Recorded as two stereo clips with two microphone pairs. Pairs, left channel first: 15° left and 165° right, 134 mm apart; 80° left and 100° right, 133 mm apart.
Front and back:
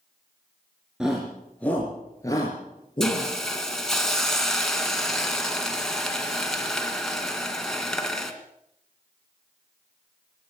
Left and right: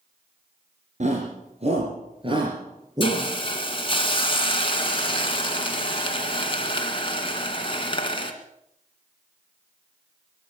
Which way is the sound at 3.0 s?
95° left.